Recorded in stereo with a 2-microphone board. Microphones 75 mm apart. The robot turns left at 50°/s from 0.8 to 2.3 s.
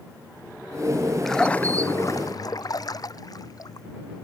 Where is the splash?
Centre (ahead or behind); by 3.9 s 55° left (ahead or behind).